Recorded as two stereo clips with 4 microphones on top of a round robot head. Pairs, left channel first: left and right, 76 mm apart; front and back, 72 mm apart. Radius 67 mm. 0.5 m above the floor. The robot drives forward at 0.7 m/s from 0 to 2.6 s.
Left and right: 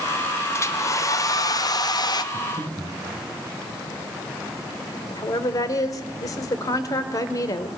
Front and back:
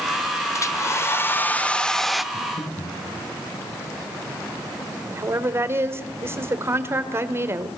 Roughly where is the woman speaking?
Behind left.